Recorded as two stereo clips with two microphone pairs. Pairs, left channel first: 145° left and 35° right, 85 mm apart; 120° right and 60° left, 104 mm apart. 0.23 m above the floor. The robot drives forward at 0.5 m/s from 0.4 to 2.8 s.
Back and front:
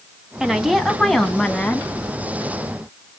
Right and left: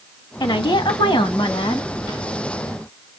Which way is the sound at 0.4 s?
115° right.